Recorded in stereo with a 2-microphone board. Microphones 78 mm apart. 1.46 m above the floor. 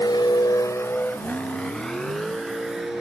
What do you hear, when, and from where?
0.0 s a vehicle: 70° left (ahead or behind); by 3.0 s 5° right (ahead or behind)